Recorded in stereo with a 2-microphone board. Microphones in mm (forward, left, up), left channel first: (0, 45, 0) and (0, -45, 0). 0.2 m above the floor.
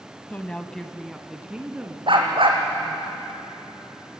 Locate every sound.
0.3 s a woman speaking: 20° left (ahead or behind), 1.0 m; by 3.1 s 15° right (ahead or behind), 3 m
2.1 s a dog barking: 70° right (ahead or behind), 2.5 m